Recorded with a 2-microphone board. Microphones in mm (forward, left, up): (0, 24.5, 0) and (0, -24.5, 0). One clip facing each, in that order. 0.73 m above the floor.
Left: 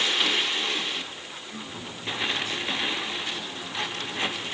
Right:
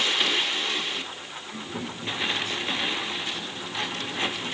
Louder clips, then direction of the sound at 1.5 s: Right 5 dB; 85° right.